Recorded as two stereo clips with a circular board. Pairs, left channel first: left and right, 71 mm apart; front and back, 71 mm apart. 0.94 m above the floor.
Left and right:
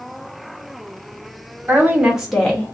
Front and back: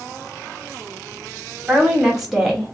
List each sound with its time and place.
1.7 s a woman speaking: 110° right, 0.9 m; by 2.8 s 70° left, 0.8 m